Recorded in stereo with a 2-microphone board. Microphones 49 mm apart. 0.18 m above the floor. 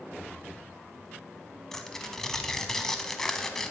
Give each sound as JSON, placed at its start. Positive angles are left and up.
{"t": 1.7, "sound": "tearing paper", "side_deg": 10, "distance_m": 0.8}